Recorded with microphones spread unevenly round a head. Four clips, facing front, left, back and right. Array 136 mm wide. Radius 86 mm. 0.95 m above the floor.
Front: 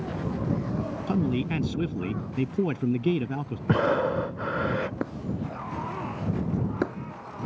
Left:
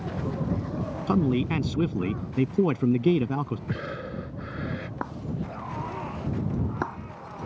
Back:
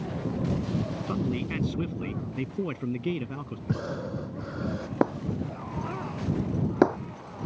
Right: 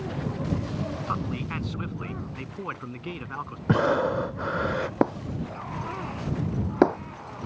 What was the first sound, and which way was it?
A man speaking, 85° left.